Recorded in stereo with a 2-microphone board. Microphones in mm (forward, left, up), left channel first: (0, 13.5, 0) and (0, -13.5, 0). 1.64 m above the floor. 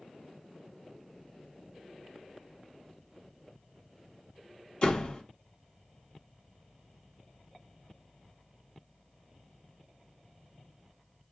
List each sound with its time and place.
4.8 s a door slam: 40° left (ahead or behind), 1.5 m